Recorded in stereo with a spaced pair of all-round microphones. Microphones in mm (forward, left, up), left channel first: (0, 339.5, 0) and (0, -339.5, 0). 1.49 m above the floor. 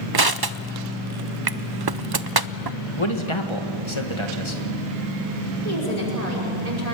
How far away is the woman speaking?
About 5.5 m.